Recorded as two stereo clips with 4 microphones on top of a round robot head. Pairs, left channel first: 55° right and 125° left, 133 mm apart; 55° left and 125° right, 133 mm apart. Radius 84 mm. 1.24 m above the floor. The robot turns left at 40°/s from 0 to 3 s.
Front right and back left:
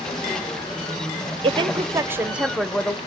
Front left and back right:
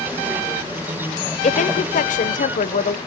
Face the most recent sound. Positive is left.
turn(degrees=20)